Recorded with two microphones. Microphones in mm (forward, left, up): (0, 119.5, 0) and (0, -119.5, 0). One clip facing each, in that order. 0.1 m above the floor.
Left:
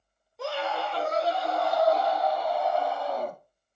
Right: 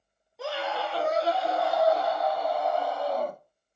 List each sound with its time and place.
0.4 s a scream: 5° right (ahead or behind), 1.3 m